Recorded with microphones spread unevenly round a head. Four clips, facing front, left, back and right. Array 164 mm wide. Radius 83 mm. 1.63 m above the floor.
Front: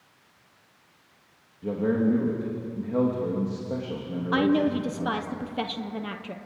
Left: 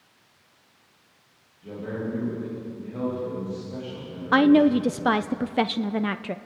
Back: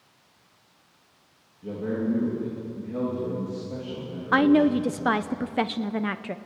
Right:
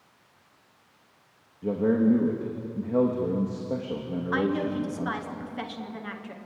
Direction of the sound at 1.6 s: 70° right.